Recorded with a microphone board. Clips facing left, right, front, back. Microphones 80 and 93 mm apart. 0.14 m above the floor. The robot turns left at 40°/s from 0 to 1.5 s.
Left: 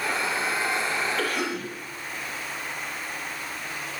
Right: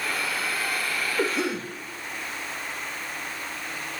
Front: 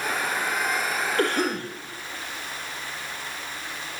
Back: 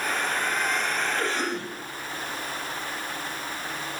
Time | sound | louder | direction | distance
1.2 | a cough | right 2 dB, front 4 dB | 20° right | 3 m